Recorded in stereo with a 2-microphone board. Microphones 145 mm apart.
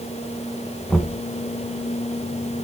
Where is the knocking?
Centre (ahead or behind), 2 m.